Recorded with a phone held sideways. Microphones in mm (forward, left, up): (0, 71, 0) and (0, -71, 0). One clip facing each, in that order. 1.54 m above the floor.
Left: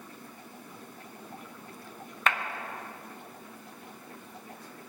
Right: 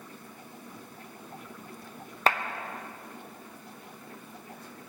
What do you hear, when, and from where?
2.3 s a clap: 30° right (ahead or behind), 0.9 m